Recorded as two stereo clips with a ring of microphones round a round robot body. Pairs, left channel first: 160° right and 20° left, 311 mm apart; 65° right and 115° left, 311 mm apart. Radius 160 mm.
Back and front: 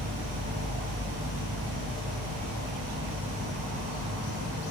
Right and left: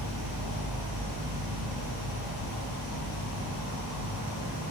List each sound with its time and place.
0.0 s an insect: 50° right, 1.0 m